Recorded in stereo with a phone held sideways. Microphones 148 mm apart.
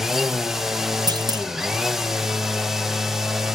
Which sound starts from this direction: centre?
A machine running, at 0.0 s.